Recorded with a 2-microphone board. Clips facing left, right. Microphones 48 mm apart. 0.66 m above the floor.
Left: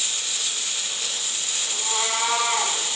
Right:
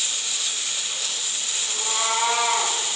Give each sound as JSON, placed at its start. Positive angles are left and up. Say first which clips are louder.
{"t": 1.7, "sound": "a cat meowing", "louder": "right 2 dB", "side_deg": -30, "distance_m": 8.0}